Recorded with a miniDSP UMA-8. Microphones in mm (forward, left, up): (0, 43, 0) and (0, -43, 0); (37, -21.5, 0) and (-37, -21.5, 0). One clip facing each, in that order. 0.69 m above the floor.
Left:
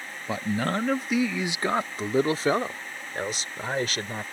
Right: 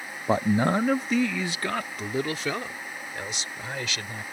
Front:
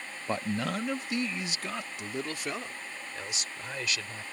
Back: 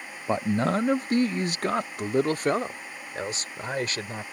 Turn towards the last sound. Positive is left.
turn(degrees=135)